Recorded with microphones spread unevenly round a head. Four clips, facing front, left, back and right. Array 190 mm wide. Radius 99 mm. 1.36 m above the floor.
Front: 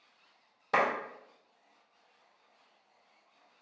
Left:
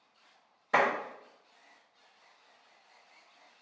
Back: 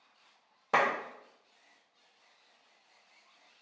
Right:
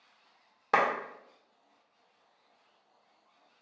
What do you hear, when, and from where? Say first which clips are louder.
0.7 s a clap: even, even; 110° right, 1.1 m